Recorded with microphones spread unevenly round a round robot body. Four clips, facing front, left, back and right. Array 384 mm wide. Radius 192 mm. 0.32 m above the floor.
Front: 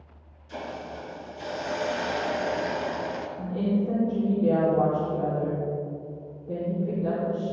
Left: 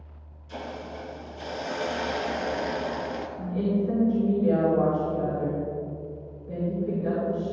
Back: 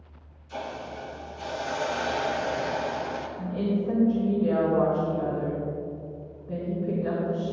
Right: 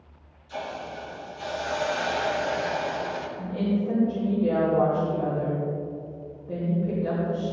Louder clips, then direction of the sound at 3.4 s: Left 1 dB, front 2 dB; straight ahead.